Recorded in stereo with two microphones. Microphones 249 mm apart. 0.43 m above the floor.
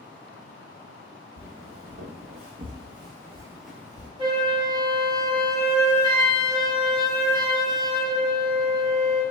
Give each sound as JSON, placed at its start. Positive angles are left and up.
{"t": 1.4, "sound": "footsteps", "side_deg": -65, "distance_m": 1.4}
{"t": 4.2, "sound": "a flute", "side_deg": -15, "distance_m": 0.9}